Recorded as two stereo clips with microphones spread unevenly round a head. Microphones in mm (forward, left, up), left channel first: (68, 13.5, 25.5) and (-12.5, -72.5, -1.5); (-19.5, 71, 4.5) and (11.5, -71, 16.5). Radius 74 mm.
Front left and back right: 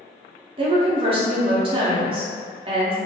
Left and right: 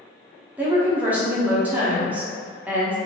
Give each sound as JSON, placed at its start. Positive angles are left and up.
{"t": 0.6, "sound": "a woman speaking", "azimuth_deg": -135, "distance_m": 0.6}